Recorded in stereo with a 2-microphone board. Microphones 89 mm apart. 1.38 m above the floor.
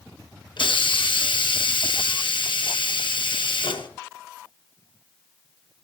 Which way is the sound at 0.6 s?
85° left.